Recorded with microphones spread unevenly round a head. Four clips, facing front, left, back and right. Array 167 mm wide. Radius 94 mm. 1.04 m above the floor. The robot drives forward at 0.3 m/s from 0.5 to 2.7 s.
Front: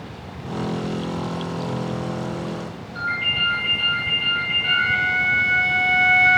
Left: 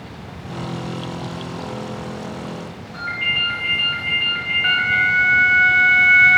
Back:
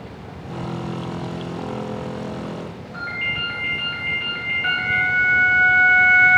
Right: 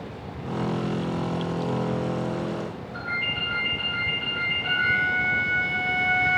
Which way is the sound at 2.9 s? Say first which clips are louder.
Left 7 dB, front 3 dB; 150° left.